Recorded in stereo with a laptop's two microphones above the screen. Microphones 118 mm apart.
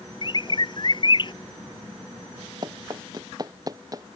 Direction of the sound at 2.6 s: 35° right (ahead or behind).